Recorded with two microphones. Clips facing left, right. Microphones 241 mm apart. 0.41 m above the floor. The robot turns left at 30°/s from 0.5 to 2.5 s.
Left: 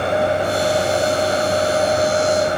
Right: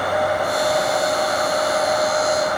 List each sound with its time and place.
Only background noise.